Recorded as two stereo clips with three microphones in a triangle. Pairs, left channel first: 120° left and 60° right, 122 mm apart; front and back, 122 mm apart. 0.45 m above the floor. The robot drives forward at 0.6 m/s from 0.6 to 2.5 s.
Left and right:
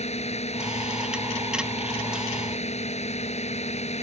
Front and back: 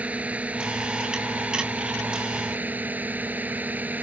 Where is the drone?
100° left; by 4.0 s 105° left.